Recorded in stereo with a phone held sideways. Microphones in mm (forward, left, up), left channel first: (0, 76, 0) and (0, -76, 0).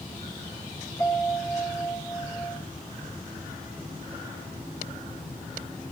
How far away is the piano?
About 3 m.